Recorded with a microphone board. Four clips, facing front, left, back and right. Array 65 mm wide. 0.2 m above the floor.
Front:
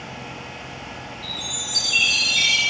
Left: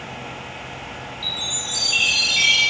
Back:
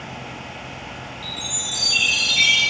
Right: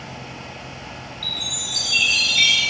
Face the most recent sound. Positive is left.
turn(degrees=100)